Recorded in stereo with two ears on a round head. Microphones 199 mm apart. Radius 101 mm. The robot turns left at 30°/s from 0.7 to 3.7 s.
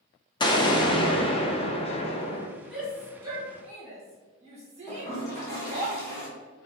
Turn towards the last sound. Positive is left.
turn(degrees=15)  # may be behind; listen again after turning